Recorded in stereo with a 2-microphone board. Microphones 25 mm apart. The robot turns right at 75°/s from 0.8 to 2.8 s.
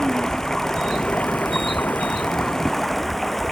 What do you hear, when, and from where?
0.0 s running water: 25° left; by 3.5 s 175° left